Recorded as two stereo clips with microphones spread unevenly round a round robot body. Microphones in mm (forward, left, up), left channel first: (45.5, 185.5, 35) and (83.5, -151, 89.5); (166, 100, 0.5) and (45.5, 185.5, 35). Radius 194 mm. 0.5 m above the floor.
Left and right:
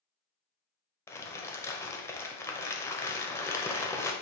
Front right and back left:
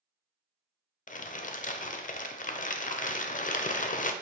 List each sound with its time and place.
1.1 s crumpling: 10° left, 0.5 m